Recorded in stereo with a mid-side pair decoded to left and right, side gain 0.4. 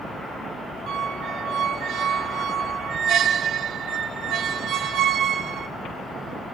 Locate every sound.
0.9 s a squeak: 70° right, 1.8 m